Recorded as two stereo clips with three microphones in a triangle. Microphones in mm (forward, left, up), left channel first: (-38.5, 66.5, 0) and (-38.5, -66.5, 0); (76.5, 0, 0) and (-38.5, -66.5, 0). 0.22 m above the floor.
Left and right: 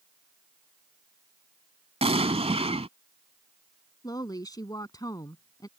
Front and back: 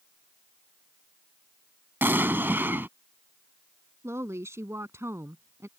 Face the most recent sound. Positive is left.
turn(degrees=145)